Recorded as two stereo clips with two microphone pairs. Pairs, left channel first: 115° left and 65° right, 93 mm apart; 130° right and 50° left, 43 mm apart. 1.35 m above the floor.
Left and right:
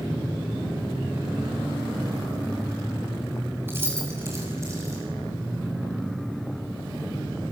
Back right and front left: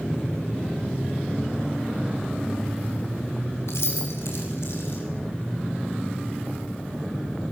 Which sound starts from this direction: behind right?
Keys jangling, at 3.7 s.